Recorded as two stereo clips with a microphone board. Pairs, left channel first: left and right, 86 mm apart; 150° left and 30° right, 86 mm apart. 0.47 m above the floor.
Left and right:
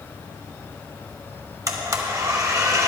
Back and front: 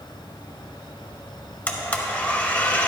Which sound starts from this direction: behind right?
A blender, at 1.7 s.